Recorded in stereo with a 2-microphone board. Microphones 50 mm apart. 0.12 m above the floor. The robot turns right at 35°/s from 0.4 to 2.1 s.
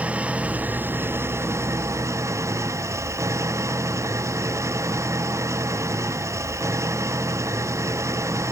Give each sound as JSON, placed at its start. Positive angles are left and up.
{"t": 0.0, "sound": "an engine running", "azimuth_deg": -150}